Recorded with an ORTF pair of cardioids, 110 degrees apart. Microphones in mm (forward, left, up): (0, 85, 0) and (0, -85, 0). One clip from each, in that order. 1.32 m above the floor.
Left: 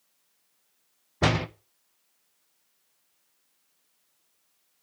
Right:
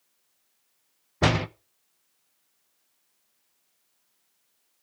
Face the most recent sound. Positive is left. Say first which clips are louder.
# right 1 dB
turn(degrees=-10)